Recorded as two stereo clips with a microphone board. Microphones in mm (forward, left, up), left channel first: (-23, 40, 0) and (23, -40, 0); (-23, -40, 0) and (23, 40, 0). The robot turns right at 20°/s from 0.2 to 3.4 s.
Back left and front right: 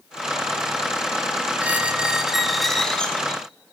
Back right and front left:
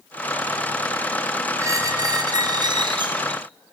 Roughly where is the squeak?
Ahead.